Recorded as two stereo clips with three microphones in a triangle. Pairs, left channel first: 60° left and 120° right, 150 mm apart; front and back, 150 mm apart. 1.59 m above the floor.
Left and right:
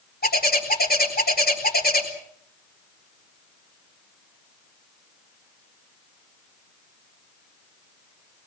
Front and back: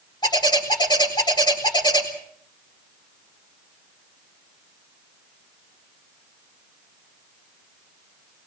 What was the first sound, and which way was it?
A bird, 60° left.